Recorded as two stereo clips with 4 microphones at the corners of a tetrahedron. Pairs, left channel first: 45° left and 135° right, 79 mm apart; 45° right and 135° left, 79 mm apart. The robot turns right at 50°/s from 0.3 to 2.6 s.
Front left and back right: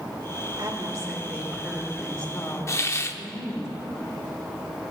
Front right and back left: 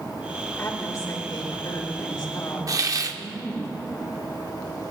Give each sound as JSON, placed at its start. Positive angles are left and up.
{"t": 0.6, "sound": "a woman speaking", "azimuth_deg": -110, "distance_m": 2.0}
{"t": 2.7, "sound": "a hiss", "azimuth_deg": 95, "distance_m": 0.5}